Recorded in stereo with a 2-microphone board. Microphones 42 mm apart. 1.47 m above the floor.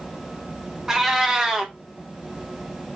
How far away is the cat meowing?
About 0.7 m.